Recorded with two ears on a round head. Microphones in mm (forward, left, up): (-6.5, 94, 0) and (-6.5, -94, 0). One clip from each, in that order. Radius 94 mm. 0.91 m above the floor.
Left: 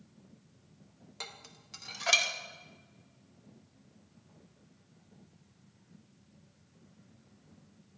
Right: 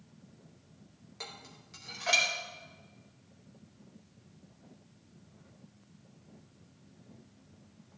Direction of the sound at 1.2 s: 25° left (ahead or behind).